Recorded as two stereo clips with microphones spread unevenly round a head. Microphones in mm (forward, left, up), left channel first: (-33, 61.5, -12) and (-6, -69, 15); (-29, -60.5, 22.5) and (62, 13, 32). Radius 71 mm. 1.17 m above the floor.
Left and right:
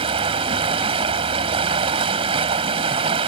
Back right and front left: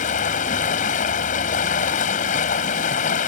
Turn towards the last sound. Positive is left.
turn(degrees=-125)